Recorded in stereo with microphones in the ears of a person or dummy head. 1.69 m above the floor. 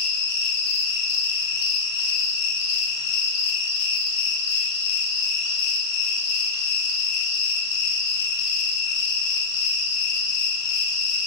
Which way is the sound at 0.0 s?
75° left (ahead or behind).